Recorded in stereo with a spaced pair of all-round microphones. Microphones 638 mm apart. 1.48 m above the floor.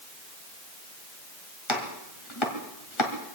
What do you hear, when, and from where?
1.7 s chopping: 45° left (ahead or behind), 1.9 m